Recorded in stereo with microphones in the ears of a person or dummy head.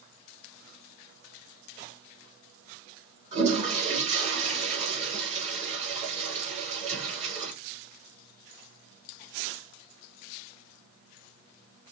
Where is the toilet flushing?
35° right (ahead or behind), 3 m.